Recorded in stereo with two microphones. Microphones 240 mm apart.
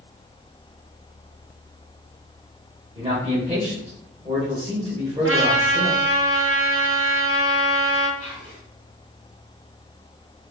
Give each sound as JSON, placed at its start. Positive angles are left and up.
{"t": 3.0, "sound": "a man speaking", "side_deg": -25, "distance_m": 1.2}
{"t": 5.2, "sound": "a trumpet", "side_deg": -60, "distance_m": 0.7}
{"t": 8.2, "sound": "whispering", "side_deg": 65, "distance_m": 1.0}